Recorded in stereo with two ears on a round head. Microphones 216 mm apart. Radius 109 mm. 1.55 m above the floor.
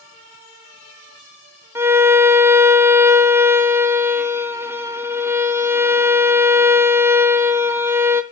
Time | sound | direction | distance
1.8 | a violin | 10° right (ahead or behind) | 0.8 m